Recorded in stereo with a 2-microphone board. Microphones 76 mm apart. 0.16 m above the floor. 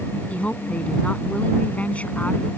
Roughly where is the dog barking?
I don't hear a dog barking.